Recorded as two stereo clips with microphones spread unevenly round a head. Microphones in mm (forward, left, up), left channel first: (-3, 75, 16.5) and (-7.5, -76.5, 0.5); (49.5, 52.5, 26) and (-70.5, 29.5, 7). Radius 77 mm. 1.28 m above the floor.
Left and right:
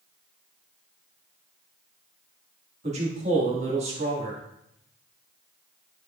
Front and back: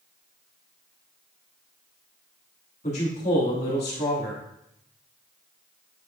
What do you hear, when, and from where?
2.8 s a man speaking: 40° right, 2 m